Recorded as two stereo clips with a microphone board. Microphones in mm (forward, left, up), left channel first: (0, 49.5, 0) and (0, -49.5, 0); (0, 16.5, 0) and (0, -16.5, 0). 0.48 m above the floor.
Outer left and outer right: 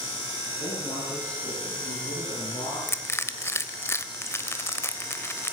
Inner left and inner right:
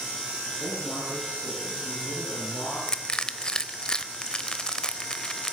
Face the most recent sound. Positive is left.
turn(degrees=25)  # may be behind; listen again after turning